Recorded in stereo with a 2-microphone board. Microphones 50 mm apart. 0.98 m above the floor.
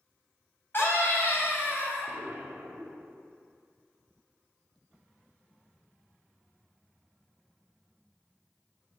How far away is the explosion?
About 2.0 m.